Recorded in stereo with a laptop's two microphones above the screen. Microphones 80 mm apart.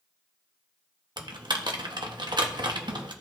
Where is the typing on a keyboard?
70° right (ahead or behind), 1.1 m.